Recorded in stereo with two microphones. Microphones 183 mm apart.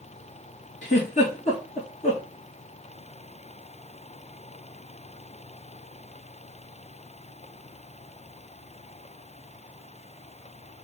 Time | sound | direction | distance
0.8 | a giggle | 40° left (ahead or behind) | 2.5 m